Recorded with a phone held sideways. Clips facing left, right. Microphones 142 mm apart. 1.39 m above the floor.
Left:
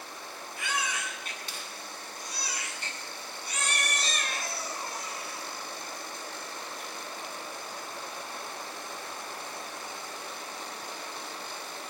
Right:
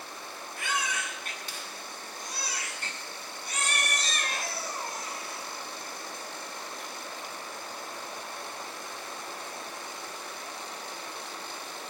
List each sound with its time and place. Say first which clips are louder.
0.6 s a baby crying: right 1 dB; 45° right (ahead or behind), 9 m